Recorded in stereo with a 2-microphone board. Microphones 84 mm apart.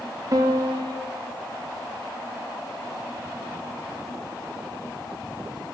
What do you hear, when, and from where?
0.3 s a piano: 45° right (ahead or behind), 3 m